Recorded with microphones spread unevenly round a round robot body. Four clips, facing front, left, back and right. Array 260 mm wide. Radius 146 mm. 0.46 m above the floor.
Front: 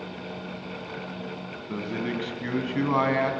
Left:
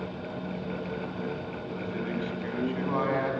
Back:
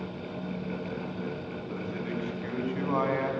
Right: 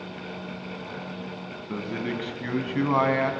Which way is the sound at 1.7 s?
45° right.